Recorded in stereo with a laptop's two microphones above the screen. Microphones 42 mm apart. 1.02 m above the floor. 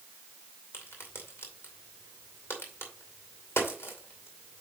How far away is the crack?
About 2.5 m.